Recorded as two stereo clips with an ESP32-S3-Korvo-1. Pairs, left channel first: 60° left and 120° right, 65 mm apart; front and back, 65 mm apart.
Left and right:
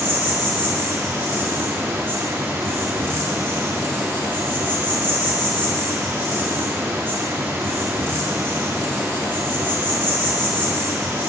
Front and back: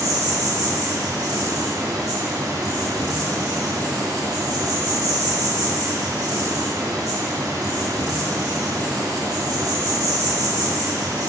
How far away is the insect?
About 1.8 m.